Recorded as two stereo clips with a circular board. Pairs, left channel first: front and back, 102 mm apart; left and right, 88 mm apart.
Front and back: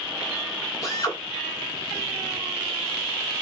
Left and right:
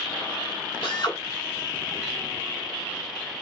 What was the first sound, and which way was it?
A drill, 55° left.